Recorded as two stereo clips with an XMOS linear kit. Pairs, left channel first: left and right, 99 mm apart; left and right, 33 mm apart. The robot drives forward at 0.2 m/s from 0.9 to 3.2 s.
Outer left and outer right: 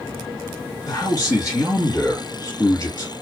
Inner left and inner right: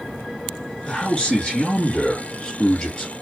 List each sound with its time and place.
0.8 s a man speaking: 35° left (ahead or behind), 1.7 m; by 3.1 s 30° left (ahead or behind), 1.8 m